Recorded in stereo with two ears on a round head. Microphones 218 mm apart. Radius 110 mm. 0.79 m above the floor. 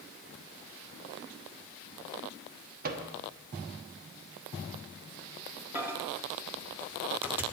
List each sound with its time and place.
2.8 s a microwave: 40° right (ahead or behind), 1.0 m
5.8 s a microwave: 10° right (ahead or behind), 0.8 m